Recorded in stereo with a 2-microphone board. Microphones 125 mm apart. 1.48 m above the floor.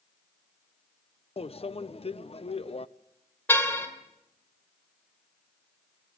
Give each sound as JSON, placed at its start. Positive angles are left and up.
{"t": 1.4, "sound": "a microwave", "side_deg": 50, "distance_m": 0.5}
{"t": 3.5, "sound": "a car horn", "side_deg": 20, "distance_m": 2.5}